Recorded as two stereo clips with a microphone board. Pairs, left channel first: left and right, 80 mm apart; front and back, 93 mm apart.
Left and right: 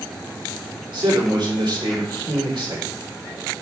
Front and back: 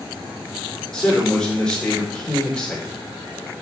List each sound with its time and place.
0.9 s a man speaking: 85° right, 3.5 m